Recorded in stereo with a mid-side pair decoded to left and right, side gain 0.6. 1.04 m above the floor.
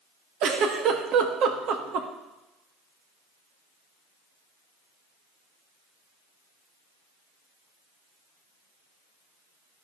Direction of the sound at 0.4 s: 60° right.